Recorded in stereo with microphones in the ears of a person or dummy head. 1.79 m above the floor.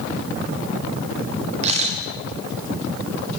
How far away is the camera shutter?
About 5 m.